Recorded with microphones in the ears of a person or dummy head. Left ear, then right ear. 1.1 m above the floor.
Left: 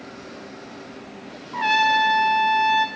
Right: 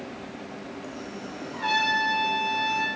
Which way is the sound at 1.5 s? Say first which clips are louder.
Left 6 dB; 30° left (ahead or behind).